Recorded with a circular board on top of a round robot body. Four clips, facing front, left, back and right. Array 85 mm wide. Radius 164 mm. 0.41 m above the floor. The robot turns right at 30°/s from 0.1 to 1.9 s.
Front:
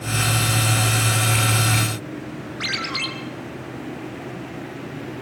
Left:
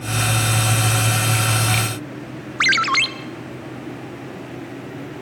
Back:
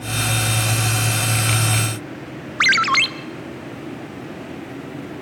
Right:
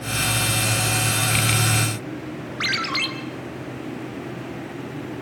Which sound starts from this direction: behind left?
A ringtone, at 2.6 s.